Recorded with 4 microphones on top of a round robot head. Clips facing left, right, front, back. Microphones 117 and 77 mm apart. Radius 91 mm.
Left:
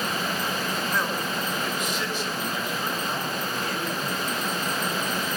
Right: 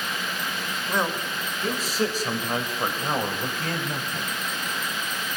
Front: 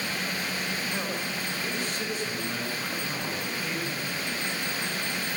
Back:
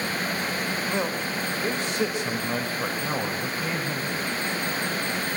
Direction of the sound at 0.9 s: 160° right.